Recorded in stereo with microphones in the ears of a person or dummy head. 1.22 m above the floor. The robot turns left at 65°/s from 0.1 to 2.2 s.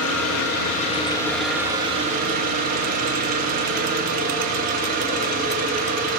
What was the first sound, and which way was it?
An engine running, 90° left.